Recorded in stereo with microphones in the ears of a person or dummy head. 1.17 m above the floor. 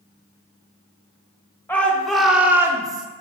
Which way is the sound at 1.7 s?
5° left (ahead or behind).